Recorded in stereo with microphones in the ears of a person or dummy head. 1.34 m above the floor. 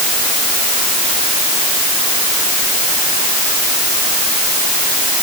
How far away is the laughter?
I don't hear laughter.